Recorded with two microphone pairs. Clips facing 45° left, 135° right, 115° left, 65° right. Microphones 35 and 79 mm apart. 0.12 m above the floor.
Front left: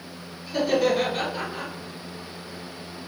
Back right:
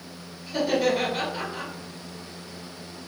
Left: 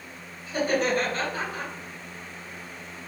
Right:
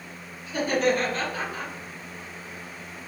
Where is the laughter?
110° left, 1.9 m.